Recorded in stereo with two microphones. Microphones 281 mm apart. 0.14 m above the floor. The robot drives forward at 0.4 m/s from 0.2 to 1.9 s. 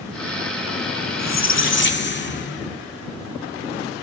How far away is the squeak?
About 0.5 m.